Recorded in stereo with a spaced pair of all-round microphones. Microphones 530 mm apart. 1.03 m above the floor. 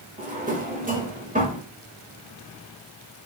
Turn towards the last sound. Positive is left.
turn(degrees=-15)  # may be behind; listen again after turning